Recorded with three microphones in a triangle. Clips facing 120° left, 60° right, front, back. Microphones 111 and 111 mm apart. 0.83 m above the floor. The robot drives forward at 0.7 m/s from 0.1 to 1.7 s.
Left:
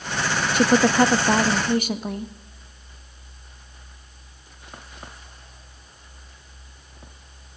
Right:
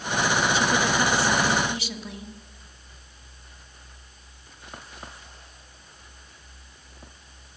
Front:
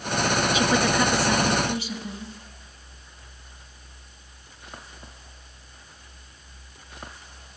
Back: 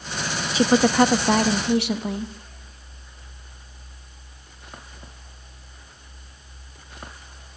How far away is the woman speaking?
About 0.8 m.